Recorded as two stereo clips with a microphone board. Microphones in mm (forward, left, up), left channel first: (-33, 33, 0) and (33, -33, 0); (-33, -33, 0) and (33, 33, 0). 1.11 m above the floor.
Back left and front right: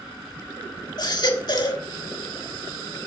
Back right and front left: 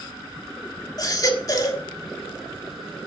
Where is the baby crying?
Straight behind, 1.5 m.